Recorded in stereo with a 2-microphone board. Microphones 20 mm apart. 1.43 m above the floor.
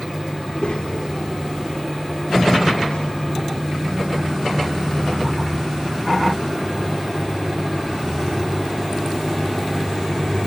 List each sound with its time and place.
0.4 s a child speaking: 75° left (ahead or behind), 2.5 m